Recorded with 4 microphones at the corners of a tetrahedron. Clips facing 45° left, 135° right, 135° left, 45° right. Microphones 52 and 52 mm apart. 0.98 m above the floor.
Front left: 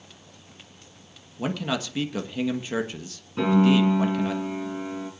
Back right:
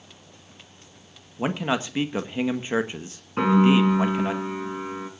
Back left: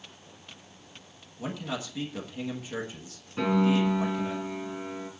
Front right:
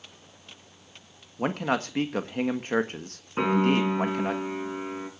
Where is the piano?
95° right, 6.5 m.